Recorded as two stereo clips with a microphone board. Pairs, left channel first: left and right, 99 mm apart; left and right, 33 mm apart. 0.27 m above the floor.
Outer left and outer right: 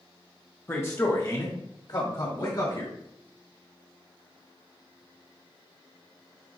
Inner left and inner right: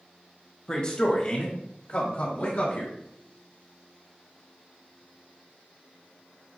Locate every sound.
0.7 s a man speaking: 25° left (ahead or behind), 1.1 m; by 2.9 s 45° left (ahead or behind), 1.7 m